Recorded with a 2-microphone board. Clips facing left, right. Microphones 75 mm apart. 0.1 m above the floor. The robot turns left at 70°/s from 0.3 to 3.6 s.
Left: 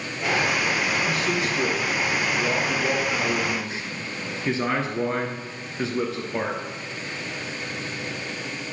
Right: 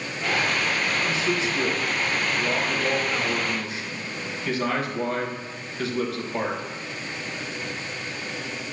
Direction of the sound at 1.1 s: 25° right (ahead or behind).